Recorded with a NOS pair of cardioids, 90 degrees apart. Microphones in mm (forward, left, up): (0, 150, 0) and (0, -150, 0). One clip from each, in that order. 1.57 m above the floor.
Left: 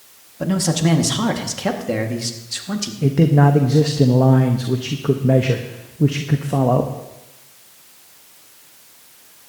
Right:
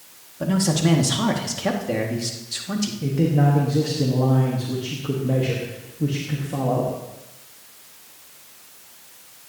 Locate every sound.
0.4 s a man speaking: 20° left, 1.8 m
3.0 s a man speaking: 50° left, 1.1 m